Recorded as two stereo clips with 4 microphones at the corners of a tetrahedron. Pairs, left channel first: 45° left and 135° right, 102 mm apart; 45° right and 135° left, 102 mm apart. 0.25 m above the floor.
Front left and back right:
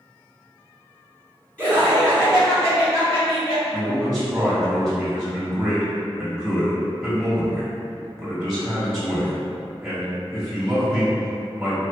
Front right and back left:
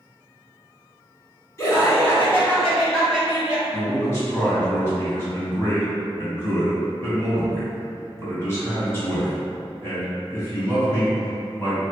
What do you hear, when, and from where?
1.6 s laughter: 20° right, 1.9 m; by 3.6 s 65° left, 2.0 m
3.7 s a man speaking: 45° right, 1.7 m